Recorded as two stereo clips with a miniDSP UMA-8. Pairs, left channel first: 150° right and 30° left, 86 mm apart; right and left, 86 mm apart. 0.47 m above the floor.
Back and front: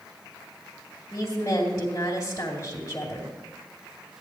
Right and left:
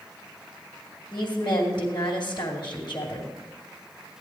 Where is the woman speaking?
95° right, 2 m.